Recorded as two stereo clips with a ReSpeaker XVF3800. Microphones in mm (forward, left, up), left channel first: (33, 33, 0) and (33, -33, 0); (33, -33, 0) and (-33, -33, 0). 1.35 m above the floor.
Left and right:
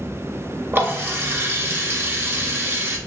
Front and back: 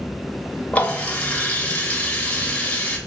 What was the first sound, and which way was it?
A running tap, 60° right.